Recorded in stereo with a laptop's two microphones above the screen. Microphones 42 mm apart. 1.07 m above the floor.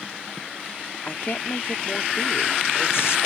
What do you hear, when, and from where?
1.1 s a woman speaking: 60° left (ahead or behind); by 3.3 s 80° left